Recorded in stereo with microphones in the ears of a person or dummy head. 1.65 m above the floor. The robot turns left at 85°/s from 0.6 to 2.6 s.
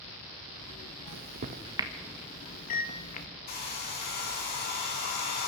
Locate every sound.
1.1 s a microwave: 70° right (ahead or behind), 1.8 m; by 3.3 s 45° left (ahead or behind), 1.8 m
3.5 s a hair dryer: 55° left (ahead or behind), 4 m